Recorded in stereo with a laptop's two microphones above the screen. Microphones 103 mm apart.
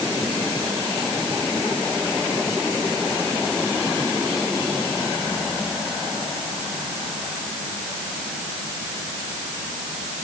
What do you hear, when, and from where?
Only background noise.